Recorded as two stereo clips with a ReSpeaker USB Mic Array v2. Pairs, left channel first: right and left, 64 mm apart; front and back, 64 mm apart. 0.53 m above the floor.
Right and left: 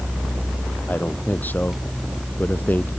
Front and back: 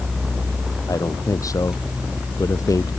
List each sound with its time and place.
0.9 s a man speaking: 30° right